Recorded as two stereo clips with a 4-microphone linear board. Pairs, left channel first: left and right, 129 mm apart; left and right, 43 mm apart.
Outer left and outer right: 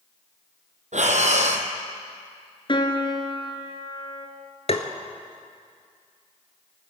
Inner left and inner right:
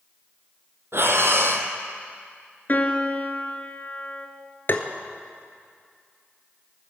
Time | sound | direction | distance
0.9 | breathing | 65° right (ahead or behind) | 1.1 m
2.7 | a piano | 40° left (ahead or behind) | 1.4 m
4.7 | tapping | 55° left (ahead or behind) | 1.1 m